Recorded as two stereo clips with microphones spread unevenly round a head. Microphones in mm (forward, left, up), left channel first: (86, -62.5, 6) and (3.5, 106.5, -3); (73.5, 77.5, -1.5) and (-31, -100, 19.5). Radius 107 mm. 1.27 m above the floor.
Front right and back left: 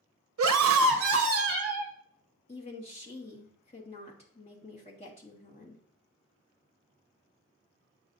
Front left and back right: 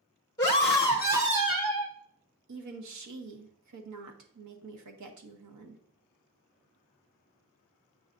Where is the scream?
135° left, 0.6 m; by 1.9 s 175° left, 1.4 m.